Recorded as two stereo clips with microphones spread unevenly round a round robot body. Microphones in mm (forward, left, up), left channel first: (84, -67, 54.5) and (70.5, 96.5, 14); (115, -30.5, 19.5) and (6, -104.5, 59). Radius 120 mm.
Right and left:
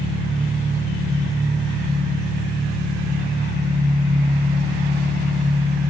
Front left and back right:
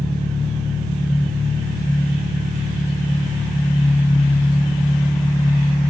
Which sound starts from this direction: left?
An engine running, at 0.0 s.